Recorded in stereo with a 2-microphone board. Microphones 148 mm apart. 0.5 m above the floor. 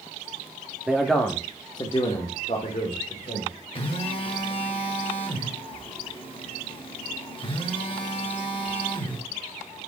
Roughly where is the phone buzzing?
Left.